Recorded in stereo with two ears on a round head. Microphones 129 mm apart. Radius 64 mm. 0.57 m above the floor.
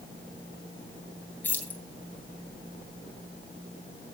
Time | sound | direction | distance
1.4 | keys jangling | 10° left (ahead or behind) | 3 m